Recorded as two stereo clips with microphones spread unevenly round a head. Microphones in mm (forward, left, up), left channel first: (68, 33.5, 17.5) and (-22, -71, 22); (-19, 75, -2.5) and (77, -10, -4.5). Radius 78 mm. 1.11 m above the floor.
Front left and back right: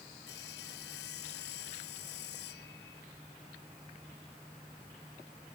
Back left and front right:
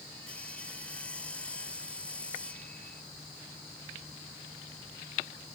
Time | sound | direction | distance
0.3 | sawing | 60° left | ?